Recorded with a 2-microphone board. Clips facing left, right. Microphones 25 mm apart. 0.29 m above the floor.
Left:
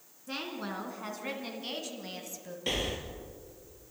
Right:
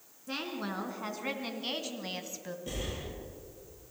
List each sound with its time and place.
0.3 s a woman speaking: 5° right (ahead or behind), 4 m; by 2.6 s 30° right (ahead or behind), 2.5 m
2.7 s breathing: 75° left (ahead or behind), 3 m